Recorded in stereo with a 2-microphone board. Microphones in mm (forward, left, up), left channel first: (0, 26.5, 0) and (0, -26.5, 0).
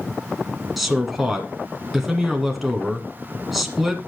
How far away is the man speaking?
About 1.7 m.